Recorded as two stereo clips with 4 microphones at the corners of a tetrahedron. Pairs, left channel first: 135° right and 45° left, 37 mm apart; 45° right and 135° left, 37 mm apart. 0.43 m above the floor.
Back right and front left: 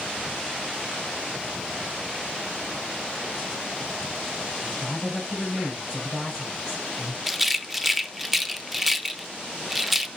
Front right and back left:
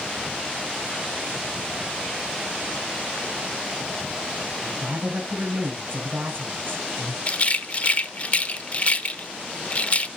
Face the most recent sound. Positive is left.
turn(degrees=-40)